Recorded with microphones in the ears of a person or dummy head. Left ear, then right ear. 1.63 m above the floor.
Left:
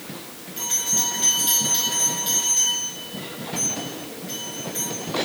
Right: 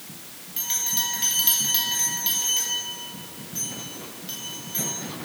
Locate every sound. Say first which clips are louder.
0.6 s a bell: left 3 dB; 15° right (ahead or behind), 2.5 m